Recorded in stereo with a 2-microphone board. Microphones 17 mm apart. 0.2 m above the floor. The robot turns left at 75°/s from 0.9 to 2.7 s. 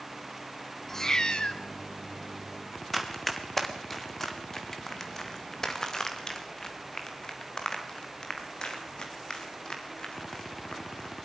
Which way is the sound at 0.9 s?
160° left.